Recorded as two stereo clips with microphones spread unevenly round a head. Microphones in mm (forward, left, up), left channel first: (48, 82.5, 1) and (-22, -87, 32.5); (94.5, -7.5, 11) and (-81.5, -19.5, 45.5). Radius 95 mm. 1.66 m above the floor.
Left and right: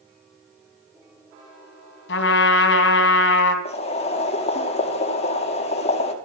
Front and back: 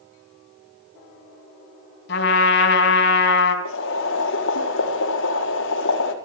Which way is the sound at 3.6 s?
10° left.